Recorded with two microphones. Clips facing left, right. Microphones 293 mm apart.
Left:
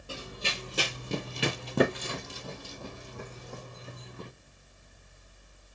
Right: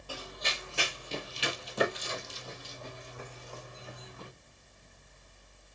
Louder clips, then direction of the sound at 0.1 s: Left 2 dB; 25° left (ahead or behind).